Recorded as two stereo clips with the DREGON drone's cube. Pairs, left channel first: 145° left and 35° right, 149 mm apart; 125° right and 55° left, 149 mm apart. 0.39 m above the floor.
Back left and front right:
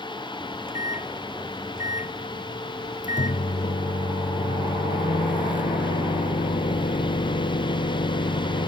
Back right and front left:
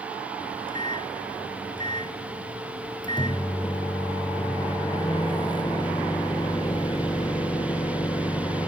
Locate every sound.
0.4 s a microwave: 175° left